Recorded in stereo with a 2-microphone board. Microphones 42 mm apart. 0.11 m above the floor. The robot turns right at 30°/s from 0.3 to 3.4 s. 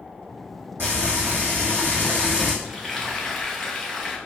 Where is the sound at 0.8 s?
95° right, 2.0 m; by 2.5 s 45° right, 2.0 m.